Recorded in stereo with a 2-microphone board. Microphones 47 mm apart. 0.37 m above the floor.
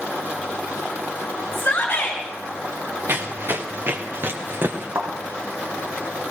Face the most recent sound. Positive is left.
turn(degrees=-55)  # may be behind; listen again after turning